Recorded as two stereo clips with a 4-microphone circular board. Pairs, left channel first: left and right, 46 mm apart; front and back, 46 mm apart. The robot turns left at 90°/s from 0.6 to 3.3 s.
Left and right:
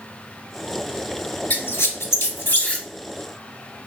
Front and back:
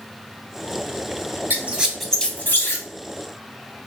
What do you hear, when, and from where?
1.5 s a squeak: 135° left, 0.6 m; by 2.9 s 15° left, 0.6 m